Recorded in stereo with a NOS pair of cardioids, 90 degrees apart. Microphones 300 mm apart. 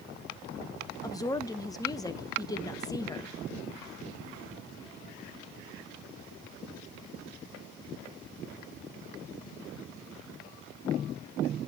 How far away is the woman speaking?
About 1.4 m.